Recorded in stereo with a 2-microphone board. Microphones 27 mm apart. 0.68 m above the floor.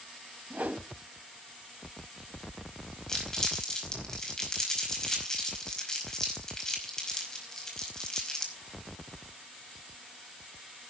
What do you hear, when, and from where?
0.5 s a whoosh: 70° right (ahead or behind), 1.2 m
3.1 s crumpling: 25° left (ahead or behind), 5 m